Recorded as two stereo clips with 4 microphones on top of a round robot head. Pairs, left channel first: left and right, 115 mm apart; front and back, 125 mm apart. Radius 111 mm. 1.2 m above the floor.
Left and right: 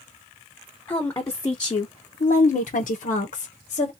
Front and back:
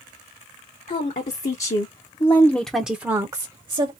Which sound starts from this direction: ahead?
A woman speaking, at 0.9 s.